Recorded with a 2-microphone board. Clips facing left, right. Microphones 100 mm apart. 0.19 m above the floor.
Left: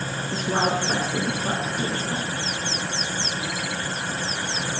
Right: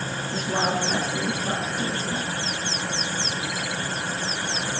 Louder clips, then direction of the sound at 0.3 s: Left 2 dB; 55° left (ahead or behind).